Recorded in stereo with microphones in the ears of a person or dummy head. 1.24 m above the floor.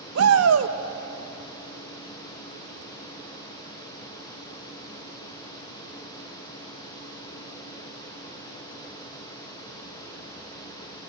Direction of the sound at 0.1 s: 85° right.